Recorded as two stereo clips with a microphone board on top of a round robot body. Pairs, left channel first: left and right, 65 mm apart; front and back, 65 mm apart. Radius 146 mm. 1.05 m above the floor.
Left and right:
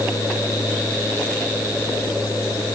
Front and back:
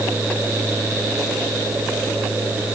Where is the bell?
I don't hear a bell.